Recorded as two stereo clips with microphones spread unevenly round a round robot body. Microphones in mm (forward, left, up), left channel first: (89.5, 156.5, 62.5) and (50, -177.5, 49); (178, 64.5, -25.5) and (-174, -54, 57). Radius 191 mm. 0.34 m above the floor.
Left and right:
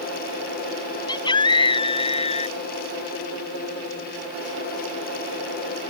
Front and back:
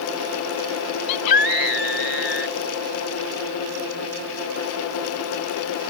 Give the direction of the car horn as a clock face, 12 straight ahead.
No car horn in this recording.